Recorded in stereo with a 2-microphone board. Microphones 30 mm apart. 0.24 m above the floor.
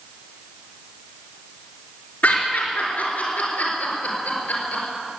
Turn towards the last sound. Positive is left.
turn(degrees=65)  # may be behind; listen again after turning